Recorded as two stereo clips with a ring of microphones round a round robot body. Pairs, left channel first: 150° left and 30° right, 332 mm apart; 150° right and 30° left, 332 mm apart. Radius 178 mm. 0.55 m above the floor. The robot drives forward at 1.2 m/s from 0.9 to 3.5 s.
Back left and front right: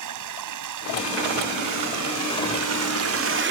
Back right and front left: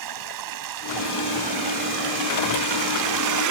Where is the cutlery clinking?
I don't hear cutlery clinking.